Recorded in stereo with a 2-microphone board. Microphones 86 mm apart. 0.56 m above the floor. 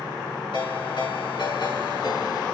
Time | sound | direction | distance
0.5 | a ringtone | 65° left (ahead or behind) | 4 m